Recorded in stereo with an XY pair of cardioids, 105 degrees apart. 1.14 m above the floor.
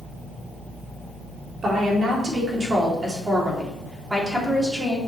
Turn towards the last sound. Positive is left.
turn(degrees=-10)